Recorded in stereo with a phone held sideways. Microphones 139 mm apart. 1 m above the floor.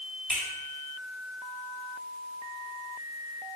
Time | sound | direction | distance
0.3 | a finger snap | 5° left (ahead or behind) | 1.5 m